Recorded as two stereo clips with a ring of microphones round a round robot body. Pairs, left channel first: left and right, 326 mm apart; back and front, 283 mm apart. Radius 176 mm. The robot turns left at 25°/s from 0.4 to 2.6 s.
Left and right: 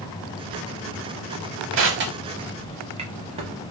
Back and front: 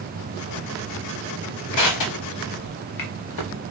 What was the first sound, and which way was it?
Crushing, 140° right.